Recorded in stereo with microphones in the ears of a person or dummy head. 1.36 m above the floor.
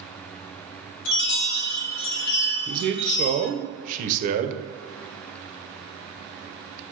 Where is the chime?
85° left, 0.6 m.